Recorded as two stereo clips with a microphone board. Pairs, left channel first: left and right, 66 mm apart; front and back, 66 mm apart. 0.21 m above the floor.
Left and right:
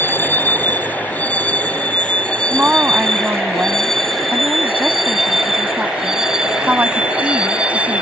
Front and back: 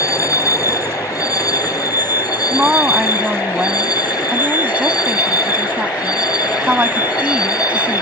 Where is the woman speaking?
130° right.